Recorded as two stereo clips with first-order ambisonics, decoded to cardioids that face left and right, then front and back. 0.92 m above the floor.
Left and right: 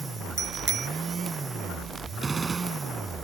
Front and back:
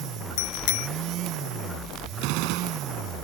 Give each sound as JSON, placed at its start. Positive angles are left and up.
{"t": 0.4, "sound": "a bicycle bell", "azimuth_deg": -20}
{"t": 2.2, "sound": "a gunshot", "azimuth_deg": -170}